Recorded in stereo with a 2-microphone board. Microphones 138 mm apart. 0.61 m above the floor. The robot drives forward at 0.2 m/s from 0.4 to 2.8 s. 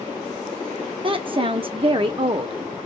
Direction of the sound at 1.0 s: 40° right (ahead or behind).